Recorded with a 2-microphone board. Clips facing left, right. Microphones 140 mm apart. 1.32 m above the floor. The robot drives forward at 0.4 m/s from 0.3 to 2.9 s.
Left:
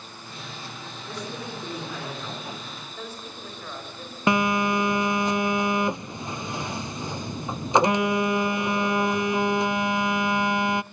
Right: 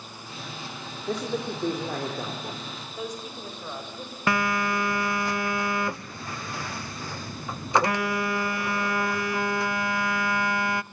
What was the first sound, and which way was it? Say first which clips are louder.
A man speaking: right 7 dB; 50° right (ahead or behind).